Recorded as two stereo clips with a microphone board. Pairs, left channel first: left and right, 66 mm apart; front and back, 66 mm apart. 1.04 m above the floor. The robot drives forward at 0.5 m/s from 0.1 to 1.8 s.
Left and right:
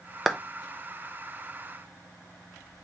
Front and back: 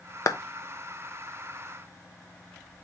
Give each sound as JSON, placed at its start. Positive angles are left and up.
{"t": 0.3, "sound": "a clap", "azimuth_deg": -5, "distance_m": 0.6}